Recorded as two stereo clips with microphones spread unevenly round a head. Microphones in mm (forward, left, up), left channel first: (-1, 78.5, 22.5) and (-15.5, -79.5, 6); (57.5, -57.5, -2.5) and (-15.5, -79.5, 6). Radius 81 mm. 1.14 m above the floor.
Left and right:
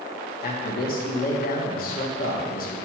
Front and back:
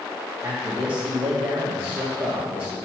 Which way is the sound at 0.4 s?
115° left.